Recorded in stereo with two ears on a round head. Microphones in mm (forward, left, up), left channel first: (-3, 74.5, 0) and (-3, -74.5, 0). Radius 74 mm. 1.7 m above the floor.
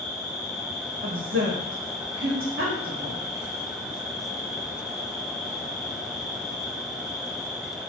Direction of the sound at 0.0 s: 20° right (ahead or behind).